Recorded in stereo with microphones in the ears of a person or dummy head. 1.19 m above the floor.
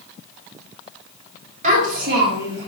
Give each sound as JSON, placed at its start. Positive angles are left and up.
{"t": 1.6, "sound": "a child speaking", "side_deg": -50, "distance_m": 1.8}